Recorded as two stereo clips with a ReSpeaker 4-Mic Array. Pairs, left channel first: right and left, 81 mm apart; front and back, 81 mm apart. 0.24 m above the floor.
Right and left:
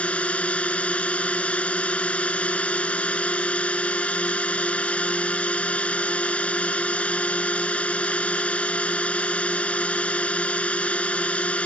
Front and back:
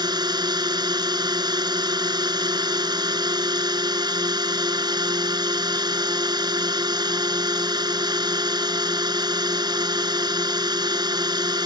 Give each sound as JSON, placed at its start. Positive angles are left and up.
{"t": 0.0, "sound": "a drone", "azimuth_deg": -165}